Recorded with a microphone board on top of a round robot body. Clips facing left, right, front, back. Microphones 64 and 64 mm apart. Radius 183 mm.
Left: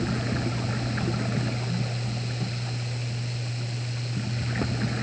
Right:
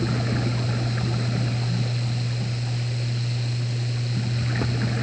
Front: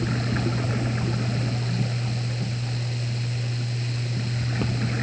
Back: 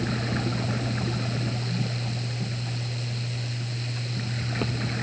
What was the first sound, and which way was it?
Only background noise.